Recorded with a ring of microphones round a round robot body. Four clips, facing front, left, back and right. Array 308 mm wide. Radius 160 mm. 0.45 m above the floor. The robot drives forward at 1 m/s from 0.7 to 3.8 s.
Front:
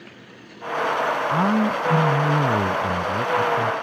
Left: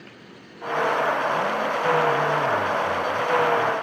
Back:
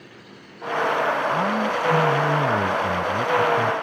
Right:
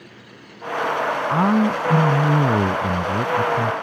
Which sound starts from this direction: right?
A man speaking, at 1.3 s.